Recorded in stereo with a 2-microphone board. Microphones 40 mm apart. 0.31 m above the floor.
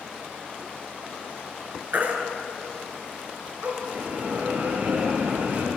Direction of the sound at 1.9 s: 45° right (ahead or behind).